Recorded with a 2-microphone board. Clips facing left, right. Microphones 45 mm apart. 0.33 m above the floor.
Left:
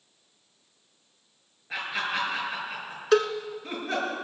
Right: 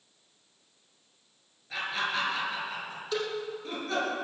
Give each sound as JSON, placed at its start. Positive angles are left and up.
{"t": 1.7, "sound": "laughter", "side_deg": 30, "distance_m": 6.0}
{"t": 3.1, "sound": "a cowbell", "side_deg": 75, "distance_m": 0.8}